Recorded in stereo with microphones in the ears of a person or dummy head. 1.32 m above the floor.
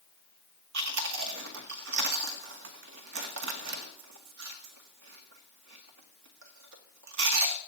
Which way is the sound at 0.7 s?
65° right (ahead or behind).